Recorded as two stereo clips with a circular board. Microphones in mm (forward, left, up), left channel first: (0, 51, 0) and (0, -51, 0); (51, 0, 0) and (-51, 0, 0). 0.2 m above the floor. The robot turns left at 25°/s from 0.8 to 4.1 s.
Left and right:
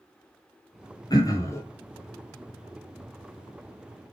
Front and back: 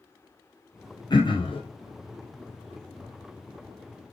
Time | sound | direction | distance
1.1 | throat clearing | 40° left | 1.0 m